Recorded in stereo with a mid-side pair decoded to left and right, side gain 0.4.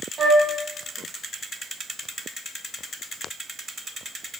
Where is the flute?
45° right, 1.2 m.